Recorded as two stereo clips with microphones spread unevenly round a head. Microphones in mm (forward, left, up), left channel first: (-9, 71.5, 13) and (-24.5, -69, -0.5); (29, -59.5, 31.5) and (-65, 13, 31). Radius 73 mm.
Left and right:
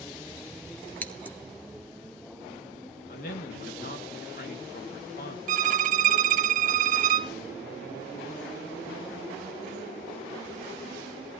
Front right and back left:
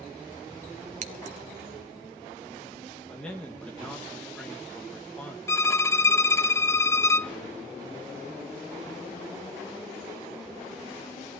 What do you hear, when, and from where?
1.0 s scissors: 155° left, 1.0 m
3.1 s a man speaking: 45° left, 2 m
5.5 s a violin: 105° right, 0.6 m